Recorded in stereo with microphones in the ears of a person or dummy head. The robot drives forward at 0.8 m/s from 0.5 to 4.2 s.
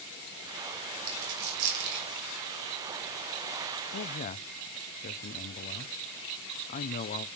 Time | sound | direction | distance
1.1 | a dropped coin | 65° right (ahead or behind) | 2.5 m
3.9 | a man speaking | 55° left (ahead or behind) | 0.6 m